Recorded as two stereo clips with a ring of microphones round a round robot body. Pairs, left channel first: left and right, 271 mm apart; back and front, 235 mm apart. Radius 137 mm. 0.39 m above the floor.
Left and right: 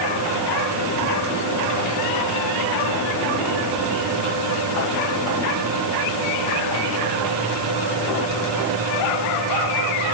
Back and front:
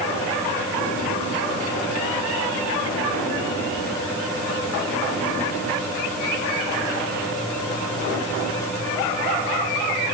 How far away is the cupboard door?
No cupboard door in this recording.